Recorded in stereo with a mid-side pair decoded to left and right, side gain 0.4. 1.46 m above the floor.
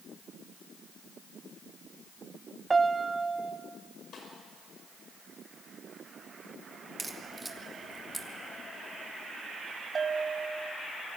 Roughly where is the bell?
Ahead right.